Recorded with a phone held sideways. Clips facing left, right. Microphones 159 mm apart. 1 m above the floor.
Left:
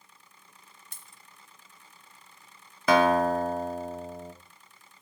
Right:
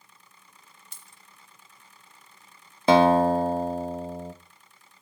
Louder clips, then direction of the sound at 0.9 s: Even; 50° left (ahead or behind).